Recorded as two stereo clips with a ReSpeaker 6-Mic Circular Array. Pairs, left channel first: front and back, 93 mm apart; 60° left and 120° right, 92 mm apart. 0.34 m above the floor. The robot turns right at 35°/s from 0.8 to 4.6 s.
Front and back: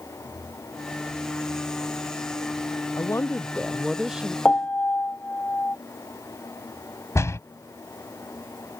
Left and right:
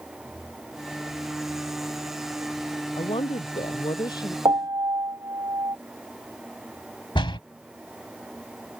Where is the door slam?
55° left.